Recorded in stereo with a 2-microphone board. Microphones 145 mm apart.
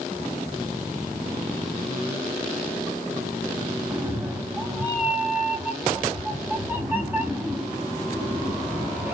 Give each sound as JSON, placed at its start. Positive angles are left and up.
{"t": 3.9, "sound": "a cat meowing", "side_deg": -15, "distance_m": 1.1}